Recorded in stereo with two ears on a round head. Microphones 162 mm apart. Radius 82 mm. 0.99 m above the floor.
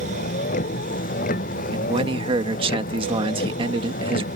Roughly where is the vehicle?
Left.